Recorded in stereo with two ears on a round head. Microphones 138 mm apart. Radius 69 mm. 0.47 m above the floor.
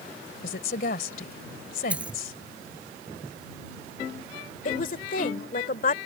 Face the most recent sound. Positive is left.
turn(degrees=55)  # may be behind; listen again after turning